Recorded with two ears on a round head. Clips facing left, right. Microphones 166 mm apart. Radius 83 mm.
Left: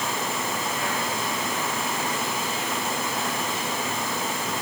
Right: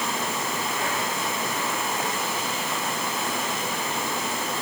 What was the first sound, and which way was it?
Only background noise.